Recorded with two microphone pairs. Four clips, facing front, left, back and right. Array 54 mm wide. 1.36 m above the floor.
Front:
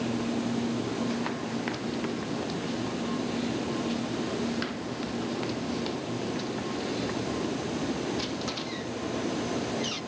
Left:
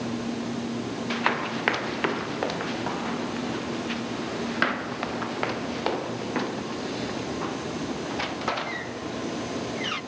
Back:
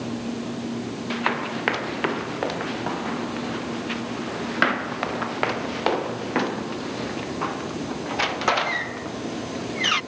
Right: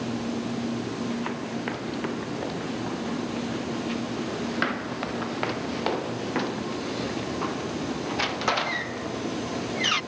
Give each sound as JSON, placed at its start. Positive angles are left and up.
{"t": 1.1, "sound": "running footsteps", "azimuth_deg": 135}